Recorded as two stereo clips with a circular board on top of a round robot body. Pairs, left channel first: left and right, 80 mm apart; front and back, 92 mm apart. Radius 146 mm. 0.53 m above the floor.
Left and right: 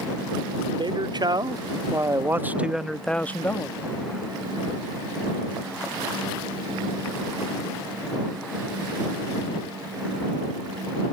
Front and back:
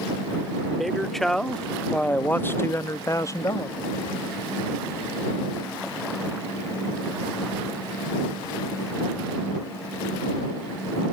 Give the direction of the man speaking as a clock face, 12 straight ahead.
3 o'clock.